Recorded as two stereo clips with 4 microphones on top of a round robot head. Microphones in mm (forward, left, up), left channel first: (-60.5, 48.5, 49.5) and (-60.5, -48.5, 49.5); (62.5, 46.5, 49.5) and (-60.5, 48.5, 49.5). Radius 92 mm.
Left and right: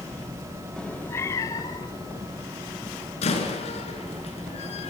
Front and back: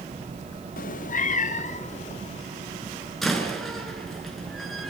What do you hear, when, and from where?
0.8 s a cat meowing: 5° left, 0.7 m; by 2.4 s 30° left, 2.5 m
3.2 s a door slam: 90° left, 7.5 m